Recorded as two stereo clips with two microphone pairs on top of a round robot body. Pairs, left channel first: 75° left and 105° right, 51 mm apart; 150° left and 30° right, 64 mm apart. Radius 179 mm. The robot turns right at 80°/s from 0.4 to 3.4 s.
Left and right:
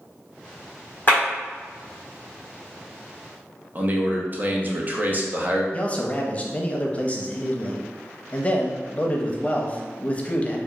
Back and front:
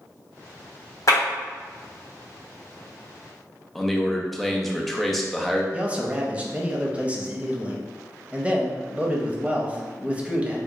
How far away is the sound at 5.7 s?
About 0.8 m.